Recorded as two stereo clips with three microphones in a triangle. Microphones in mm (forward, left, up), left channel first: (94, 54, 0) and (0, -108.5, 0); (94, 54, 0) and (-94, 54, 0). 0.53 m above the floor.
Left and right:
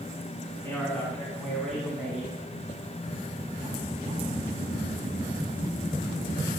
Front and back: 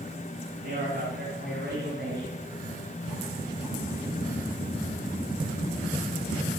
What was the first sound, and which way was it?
A man speaking, 140° left.